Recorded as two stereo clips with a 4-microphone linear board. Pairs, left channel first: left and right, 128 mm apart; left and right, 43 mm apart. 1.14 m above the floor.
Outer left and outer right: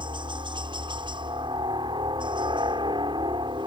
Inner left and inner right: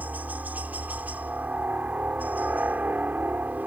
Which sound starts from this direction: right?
A helicopter, at 0.0 s.